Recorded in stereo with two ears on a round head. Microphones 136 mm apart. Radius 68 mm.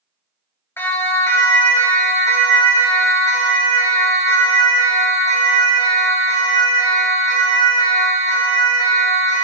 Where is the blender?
I don't hear a blender.